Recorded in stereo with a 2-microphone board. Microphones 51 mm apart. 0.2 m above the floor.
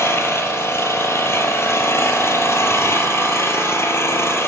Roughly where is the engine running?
Left.